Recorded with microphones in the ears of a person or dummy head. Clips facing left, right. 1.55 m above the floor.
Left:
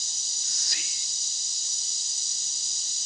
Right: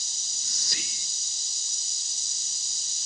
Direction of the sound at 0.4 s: 70° right (ahead or behind).